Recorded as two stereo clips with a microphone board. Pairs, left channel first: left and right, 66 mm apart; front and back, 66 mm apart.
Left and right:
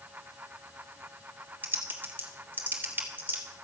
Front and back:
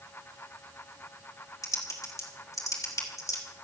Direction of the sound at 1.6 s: 30° right.